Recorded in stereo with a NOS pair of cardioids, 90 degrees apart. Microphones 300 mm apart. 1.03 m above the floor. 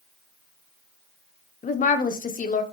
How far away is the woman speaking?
About 0.5 m.